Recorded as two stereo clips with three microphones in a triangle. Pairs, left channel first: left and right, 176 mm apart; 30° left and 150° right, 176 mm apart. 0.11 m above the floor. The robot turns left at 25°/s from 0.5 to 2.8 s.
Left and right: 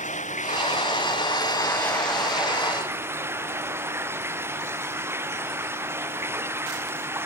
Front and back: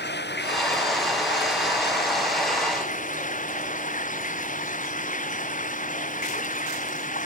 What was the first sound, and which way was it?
Running water, 45° left.